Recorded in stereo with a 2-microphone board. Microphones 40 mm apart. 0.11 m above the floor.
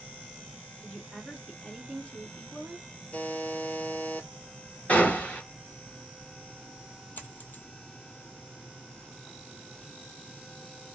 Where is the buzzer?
50° left (ahead or behind), 0.8 m.